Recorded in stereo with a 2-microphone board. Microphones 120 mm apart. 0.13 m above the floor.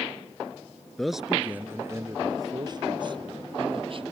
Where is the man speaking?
5° left (ahead or behind); by 4.0 s 50° right (ahead or behind).